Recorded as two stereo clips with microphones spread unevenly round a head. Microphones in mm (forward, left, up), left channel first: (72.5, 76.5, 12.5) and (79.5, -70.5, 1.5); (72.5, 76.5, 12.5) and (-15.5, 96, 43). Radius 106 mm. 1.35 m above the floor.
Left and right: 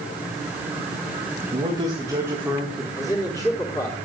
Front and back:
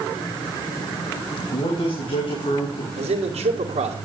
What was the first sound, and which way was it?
A man speaking, 30° right.